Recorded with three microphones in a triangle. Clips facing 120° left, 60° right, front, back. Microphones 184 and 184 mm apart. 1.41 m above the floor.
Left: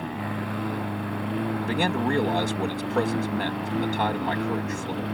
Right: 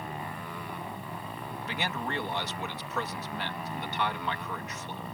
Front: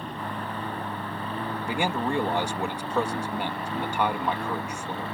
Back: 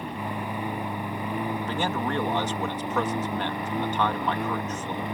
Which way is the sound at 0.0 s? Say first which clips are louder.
Left 8 dB, back 2 dB; 105° left.